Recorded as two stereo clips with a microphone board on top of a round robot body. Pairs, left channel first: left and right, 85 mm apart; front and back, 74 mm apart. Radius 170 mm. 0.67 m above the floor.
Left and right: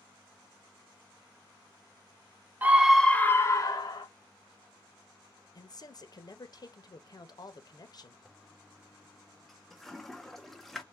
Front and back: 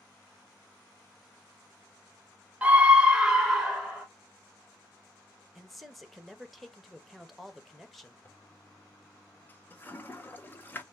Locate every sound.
2.6 s a scream: 130° right, 1.0 m; by 4.1 s 90° left, 1.3 m
5.5 s a man speaking: 90° left, 1.2 m
8.2 s a toilet flushing: 5° left, 1.0 m